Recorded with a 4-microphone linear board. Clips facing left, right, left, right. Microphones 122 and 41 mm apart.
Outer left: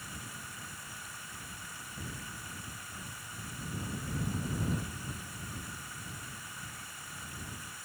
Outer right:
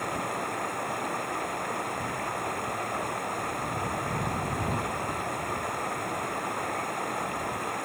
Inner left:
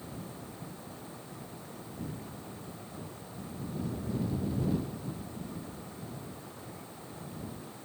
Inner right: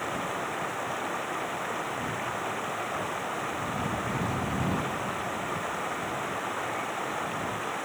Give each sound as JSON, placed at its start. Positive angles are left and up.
{"t": 0.0, "sound": "running water", "side_deg": -60}